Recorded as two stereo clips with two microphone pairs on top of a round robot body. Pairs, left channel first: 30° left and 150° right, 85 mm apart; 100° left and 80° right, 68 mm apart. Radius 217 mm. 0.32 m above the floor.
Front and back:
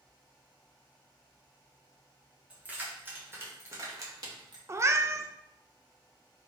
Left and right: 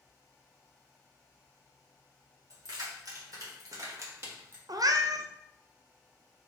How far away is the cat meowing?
About 0.6 m.